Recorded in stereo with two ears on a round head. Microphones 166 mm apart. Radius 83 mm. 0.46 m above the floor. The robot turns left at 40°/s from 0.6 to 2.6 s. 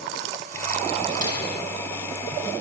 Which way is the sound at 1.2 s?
50° right (ahead or behind).